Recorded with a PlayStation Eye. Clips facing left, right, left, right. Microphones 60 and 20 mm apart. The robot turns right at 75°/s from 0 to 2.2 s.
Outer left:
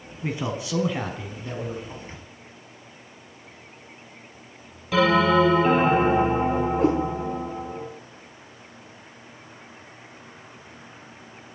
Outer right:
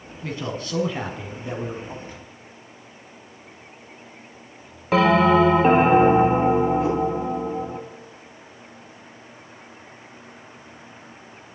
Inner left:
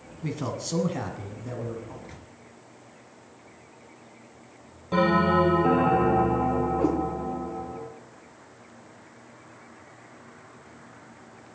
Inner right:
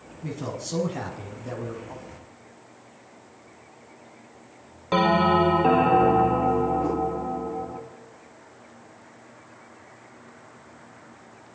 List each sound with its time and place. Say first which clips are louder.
0.2 s a man speaking: outer left 1 dB, inner left 1 dB; 20° left (ahead or behind), 1.1 m; by 1.9 s 20° right (ahead or behind), 1.1 m
2.0 s a microwave: outer right 2 dB, inner right 1 dB; 40° left (ahead or behind), 1.6 m; by 2.3 s 30° left (ahead or behind), 1.6 m
4.9 s a bell: outer right 2 dB, inner right 2 dB; 45° right (ahead or behind), 2 m
6.8 s a cat meowing: outer left 2 dB, inner left 1 dB; 65° left (ahead or behind), 6 m